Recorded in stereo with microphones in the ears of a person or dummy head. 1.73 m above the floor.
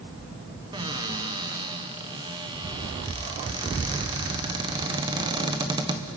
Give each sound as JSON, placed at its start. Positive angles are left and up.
{"t": 0.7, "sound": "a cupboard door", "side_deg": -20, "distance_m": 1.4}